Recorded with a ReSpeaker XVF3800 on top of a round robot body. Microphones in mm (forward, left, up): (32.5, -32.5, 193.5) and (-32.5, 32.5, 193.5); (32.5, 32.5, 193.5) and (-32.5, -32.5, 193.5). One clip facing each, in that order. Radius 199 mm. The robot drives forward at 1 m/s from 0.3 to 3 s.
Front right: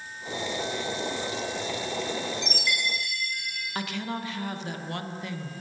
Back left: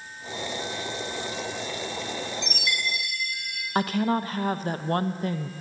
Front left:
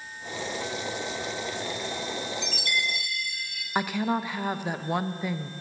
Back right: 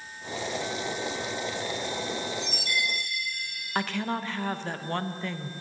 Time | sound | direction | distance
2.4 | a chime | 40° left | 3 m
3.8 | a woman speaking | 120° left | 0.9 m